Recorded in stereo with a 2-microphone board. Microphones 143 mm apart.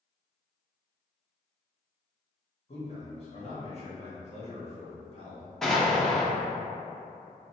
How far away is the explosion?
About 0.8 m.